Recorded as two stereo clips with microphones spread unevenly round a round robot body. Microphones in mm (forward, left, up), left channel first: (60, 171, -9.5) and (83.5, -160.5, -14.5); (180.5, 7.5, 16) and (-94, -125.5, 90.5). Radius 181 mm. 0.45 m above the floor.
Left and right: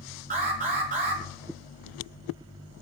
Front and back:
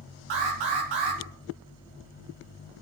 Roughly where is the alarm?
Behind right.